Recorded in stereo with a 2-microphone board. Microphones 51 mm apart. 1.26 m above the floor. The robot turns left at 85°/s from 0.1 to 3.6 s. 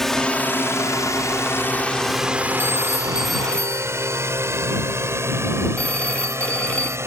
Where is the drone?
5° left (ahead or behind); by 7.1 s 55° right (ahead or behind).